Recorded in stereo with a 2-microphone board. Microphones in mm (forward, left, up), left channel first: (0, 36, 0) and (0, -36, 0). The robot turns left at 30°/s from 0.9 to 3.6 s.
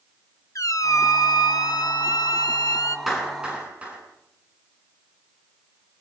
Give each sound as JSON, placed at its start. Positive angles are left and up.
{"t": 0.6, "sound": "a squeak", "azimuth_deg": 125, "distance_m": 1.1}
{"t": 3.1, "sound": "a clap", "side_deg": 0, "distance_m": 9.5}